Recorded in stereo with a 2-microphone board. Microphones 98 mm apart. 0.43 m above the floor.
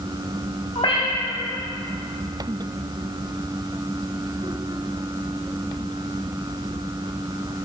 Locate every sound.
0.8 s a cat meowing: 70° left (ahead or behind), 1.6 m